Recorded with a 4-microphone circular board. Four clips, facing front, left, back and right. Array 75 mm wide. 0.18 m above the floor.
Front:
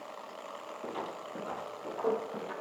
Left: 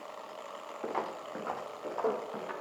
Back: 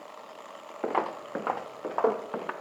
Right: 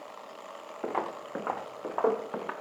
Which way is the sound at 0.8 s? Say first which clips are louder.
Right 3 dB, back 11 dB; 170° right.